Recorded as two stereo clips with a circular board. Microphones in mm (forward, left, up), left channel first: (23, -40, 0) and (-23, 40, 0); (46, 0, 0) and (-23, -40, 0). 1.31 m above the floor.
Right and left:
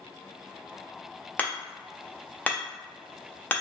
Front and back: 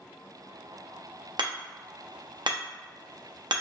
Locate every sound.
1.4 s hammering: 135° right, 0.7 m